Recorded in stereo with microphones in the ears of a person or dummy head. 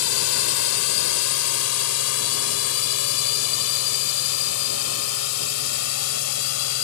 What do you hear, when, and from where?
0.0 s a drone: 80° left